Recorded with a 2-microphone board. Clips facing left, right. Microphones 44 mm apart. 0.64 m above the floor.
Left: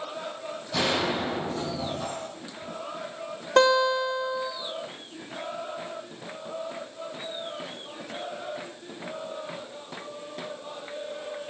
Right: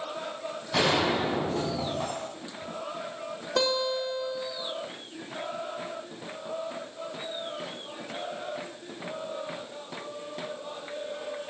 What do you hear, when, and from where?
0.7 s a gunshot: 65° right (ahead or behind), 5 m
3.6 s a guitar: 55° left (ahead or behind), 2.5 m